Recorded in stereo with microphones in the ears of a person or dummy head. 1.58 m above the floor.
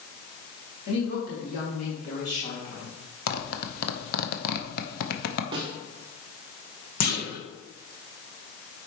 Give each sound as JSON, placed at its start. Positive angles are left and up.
{"t": 0.9, "sound": "a woman speaking", "side_deg": 60, "distance_m": 3.0}
{"t": 3.3, "sound": "a zipper", "side_deg": 55, "distance_m": 0.9}
{"t": 5.5, "sound": "a snare drum", "side_deg": -25, "distance_m": 0.7}
{"t": 7.0, "sound": "a clunk", "side_deg": 60, "distance_m": 1.4}